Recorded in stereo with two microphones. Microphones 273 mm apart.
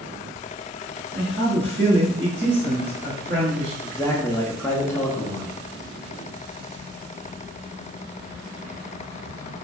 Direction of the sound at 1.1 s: 40° right (ahead or behind).